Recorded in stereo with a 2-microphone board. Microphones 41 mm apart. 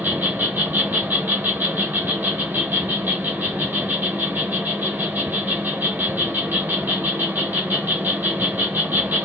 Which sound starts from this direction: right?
An insect, at 0.0 s.